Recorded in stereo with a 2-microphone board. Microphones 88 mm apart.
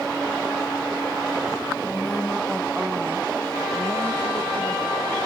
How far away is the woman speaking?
About 1.4 m.